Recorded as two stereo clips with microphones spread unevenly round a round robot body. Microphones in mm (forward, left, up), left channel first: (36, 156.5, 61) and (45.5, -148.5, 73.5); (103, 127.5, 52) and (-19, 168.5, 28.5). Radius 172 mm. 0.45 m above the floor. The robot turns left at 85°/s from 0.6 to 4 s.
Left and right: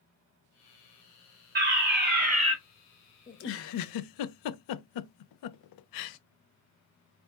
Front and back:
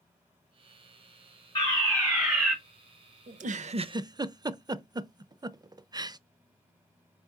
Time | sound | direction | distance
1.6 | a fire alarm | 65° right | 2.5 m
3.3 | a giggle | 160° left | 0.5 m